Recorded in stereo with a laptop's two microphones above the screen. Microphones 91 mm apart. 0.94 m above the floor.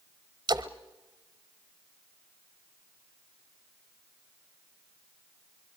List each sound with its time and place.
0.5 s a splash: 50° right (ahead or behind), 1.1 m